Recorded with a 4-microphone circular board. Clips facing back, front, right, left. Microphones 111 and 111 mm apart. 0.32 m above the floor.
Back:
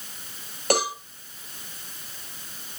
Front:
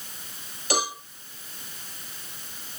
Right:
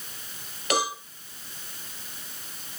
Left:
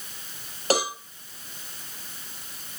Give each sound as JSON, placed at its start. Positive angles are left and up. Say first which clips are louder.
{"t": 0.7, "sound": "a cowbell", "louder": "back 4 dB, left 2 dB", "azimuth_deg": 145, "distance_m": 5.5}